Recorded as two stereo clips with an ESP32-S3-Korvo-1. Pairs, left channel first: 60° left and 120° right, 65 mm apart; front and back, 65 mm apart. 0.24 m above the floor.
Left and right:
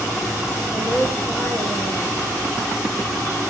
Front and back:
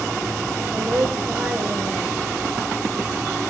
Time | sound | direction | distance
0.7 | a woman speaking | 105° left | 4.5 m